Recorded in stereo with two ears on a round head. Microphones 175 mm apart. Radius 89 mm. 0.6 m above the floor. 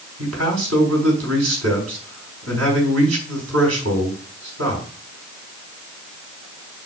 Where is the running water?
I don't hear running water.